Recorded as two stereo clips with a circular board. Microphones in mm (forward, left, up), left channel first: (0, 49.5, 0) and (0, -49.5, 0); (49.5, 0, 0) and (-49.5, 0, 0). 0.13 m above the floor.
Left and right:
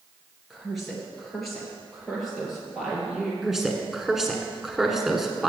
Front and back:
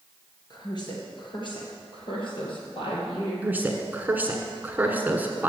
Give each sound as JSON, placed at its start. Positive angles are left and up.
{"t": 0.5, "sound": "a woman speaking", "azimuth_deg": 0, "distance_m": 2.5}
{"t": 3.4, "sound": "a woman speaking", "azimuth_deg": -165, "distance_m": 1.1}